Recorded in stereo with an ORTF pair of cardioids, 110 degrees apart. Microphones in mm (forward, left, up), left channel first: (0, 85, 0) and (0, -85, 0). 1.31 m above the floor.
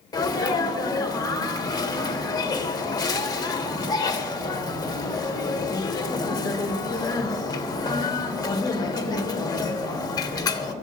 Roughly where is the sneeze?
Ahead left.